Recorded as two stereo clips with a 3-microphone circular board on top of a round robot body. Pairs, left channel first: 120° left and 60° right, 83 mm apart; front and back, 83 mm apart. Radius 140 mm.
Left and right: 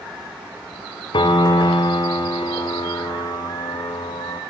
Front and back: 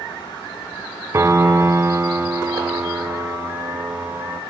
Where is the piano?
125° left, 1.7 m.